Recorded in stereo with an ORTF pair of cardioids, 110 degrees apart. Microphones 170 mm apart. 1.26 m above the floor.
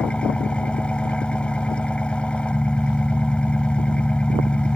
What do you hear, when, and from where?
0.0 s an engine running: 5° left